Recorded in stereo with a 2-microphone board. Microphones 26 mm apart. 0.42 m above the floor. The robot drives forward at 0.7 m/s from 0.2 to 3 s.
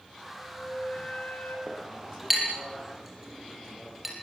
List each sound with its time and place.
0.2 s a flute: 70° left (ahead or behind), 5 m; by 1.6 s 60° left (ahead or behind), 5 m
1.7 s a clink: 5° right (ahead or behind), 8.5 m; by 4.1 s 10° right (ahead or behind), 8 m